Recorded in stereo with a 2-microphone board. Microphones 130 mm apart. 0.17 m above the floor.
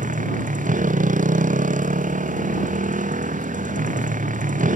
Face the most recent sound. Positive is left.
turn(degrees=-80)